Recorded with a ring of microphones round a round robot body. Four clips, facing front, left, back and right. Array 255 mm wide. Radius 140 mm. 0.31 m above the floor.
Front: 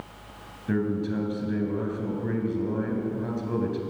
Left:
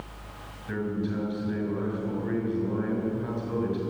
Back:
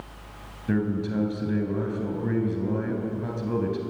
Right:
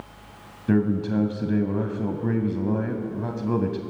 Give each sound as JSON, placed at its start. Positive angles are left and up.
{"t": 0.7, "sound": "a man speaking", "azimuth_deg": -95, "distance_m": 2.5}